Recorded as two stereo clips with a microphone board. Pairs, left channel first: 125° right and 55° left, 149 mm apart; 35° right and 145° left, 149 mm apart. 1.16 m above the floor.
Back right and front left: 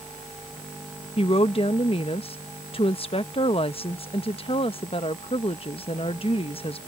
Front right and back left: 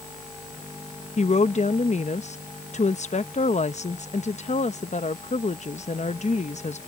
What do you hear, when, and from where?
1.2 s a woman speaking: 75° right